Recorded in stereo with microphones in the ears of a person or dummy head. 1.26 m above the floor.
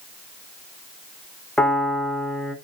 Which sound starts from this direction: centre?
A piano, at 1.6 s.